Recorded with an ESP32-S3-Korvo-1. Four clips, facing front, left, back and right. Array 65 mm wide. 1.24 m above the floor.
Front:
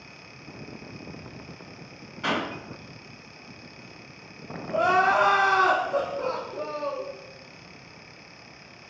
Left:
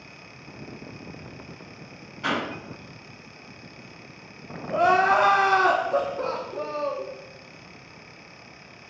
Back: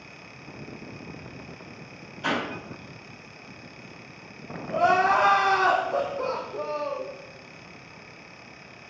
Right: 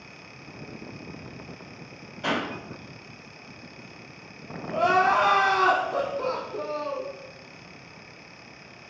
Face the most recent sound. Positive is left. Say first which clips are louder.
# left 2 dB, even
turn(degrees=85)